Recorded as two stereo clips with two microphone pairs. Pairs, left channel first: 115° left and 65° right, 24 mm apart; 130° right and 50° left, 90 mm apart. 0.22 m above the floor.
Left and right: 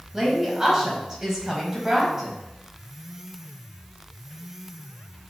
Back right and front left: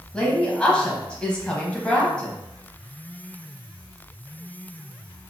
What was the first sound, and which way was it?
A woman speaking, 80° right.